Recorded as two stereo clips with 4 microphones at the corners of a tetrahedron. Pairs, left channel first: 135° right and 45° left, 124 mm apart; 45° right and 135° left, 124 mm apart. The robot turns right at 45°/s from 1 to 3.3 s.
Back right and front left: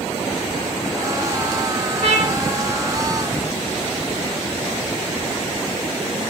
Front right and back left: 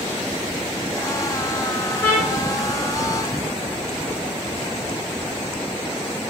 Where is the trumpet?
30° left, 4.5 m; by 2.4 s 45° left, 4.5 m.